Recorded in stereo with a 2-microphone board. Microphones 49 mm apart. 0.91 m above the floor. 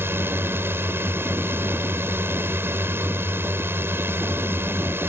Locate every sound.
0.0 s a drone: 55° right (ahead or behind)